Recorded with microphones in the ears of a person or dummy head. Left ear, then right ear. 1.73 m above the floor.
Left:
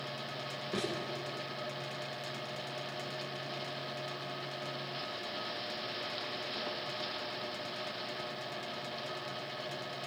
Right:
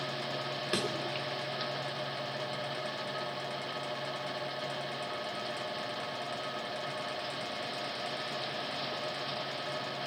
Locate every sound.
0.7 s a thud: 60° right (ahead or behind), 3 m